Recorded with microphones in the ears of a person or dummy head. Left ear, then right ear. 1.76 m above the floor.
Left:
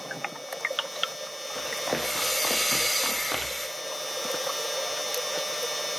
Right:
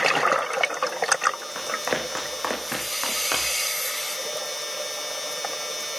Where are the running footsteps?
60° right (ahead or behind), 5.5 m; by 3.7 s 75° right (ahead or behind), 7 m.